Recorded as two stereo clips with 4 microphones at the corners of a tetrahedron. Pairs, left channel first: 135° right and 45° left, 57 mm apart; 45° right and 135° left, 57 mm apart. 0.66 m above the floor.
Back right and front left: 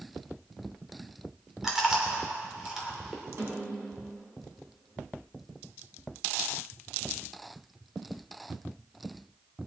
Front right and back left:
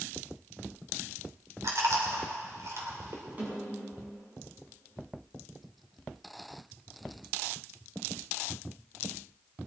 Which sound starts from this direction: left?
A snare drum, at 3.4 s.